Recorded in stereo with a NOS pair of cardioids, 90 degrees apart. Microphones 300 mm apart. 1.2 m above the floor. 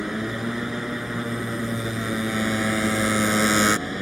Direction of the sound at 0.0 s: Straight ahead.